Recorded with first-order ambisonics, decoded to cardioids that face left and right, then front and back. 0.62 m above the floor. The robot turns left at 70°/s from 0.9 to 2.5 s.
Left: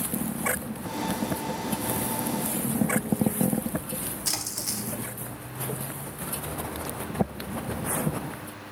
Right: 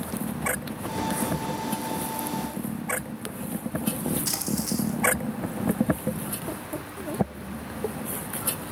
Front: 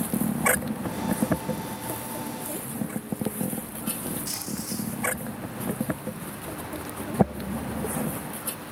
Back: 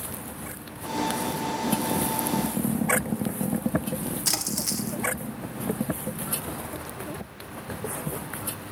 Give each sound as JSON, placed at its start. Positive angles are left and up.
{"t": 4.2, "sound": "a splash", "azimuth_deg": 170, "distance_m": 1.1}